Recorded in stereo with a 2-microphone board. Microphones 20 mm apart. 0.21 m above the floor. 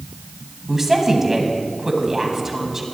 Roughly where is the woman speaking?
Right.